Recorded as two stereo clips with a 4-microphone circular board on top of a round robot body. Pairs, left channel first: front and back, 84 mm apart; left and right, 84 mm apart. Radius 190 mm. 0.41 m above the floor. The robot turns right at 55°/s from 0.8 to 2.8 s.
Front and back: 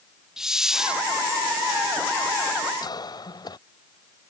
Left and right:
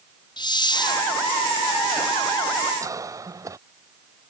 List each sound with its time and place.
0.4 s a hiss: 95° left; by 1.0 s 110° left
2.8 s a cough: 40° right